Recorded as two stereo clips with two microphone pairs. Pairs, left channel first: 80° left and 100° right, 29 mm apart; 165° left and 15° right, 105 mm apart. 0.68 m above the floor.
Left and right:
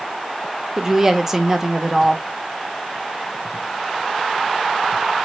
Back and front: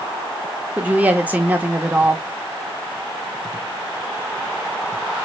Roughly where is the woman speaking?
Ahead right.